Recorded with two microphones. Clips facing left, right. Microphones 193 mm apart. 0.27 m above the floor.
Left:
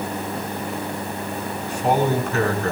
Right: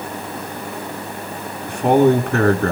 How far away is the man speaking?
About 3 m.